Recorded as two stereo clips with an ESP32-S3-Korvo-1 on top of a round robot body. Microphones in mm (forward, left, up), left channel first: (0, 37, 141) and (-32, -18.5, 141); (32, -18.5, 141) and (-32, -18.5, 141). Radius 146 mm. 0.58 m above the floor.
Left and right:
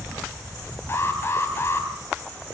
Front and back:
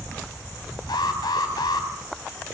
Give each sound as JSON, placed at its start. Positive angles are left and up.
{"t": 0.9, "sound": "an alarm", "azimuth_deg": 5, "distance_m": 3.5}